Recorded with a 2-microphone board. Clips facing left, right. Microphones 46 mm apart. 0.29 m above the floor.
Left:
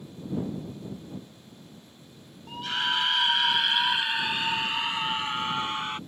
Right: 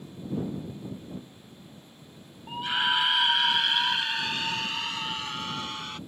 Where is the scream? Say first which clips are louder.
Right 2 dB; 15° right (ahead or behind); by 6.0 s 30° left (ahead or behind).